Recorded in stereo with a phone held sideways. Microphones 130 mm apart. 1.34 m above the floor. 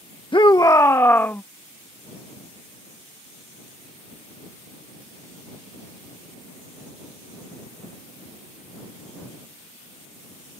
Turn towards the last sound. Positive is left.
turn(degrees=15)  # may be behind; listen again after turning